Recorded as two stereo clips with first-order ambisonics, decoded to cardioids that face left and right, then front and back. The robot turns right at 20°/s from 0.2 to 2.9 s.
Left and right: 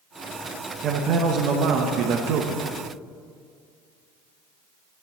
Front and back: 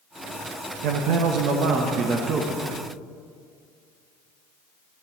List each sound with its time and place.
0.8 s a man speaking: 150° right, 0.8 m; by 2.7 s 110° right, 0.8 m